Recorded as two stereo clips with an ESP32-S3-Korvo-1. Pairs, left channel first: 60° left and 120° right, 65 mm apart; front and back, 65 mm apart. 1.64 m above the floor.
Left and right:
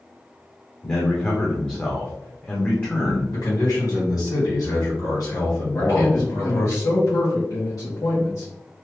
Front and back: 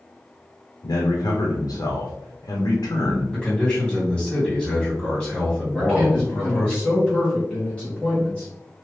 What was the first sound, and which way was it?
A man speaking, 5° right.